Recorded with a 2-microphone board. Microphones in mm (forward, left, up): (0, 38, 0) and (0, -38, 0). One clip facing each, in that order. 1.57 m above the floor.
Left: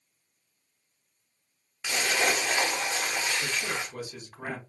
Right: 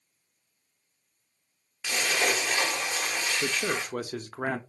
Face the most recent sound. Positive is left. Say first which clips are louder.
# right 3 dB
turn(degrees=-65)  # may be behind; listen again after turning